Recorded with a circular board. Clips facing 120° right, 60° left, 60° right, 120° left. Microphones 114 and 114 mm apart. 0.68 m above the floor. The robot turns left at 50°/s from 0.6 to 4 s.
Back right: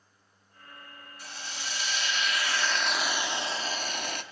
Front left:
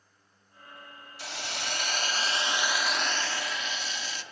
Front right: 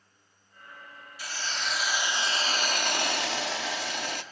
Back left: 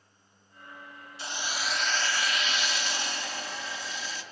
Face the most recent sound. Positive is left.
turn(degrees=-85)